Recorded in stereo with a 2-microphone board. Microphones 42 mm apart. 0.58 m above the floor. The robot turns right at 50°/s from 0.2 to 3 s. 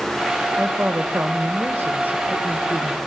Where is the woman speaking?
130° right, 2.5 m; by 3.0 s 10° right, 2.5 m.